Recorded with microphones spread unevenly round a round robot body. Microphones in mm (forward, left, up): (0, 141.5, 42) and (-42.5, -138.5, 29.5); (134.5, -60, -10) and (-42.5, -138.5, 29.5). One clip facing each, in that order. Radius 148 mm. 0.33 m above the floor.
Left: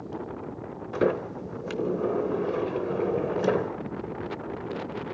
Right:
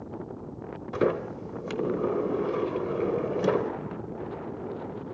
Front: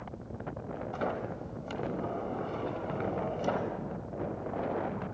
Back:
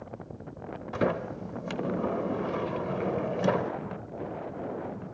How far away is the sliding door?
About 0.8 m.